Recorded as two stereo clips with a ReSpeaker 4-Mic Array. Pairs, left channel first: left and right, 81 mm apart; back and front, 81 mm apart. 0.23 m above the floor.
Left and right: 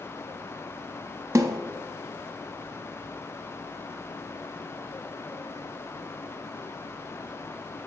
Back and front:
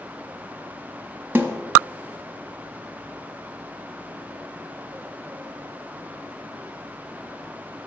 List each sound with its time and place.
1.4 s a snare drum: 55° right, 0.7 m